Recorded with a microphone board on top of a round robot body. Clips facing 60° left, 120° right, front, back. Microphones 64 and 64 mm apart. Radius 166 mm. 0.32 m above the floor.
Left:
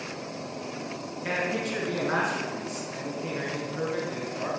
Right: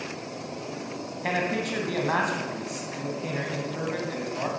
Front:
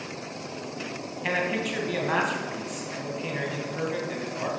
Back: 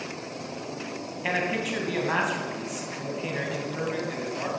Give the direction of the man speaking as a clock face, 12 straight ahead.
3 o'clock.